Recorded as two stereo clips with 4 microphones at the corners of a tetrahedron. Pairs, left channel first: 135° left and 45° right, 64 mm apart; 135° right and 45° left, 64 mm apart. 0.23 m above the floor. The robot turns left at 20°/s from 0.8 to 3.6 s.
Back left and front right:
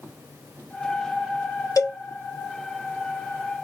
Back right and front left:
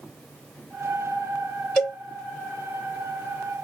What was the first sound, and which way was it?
A cowbell, 150° left.